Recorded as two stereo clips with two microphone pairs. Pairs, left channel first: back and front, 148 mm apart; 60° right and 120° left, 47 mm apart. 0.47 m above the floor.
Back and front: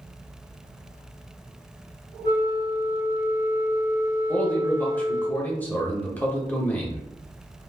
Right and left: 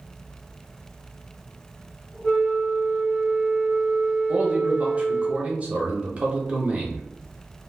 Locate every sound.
2.2 s a flute: 125° right, 1.0 m
4.3 s a man speaking: 110° left, 0.8 m